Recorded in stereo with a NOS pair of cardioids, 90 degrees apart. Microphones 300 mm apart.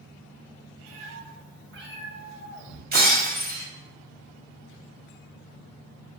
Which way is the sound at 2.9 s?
30° right.